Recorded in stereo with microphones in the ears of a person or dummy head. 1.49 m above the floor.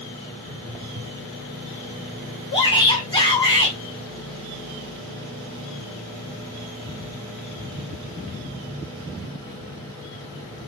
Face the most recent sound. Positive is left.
turn(degrees=20)  # may be behind; listen again after turning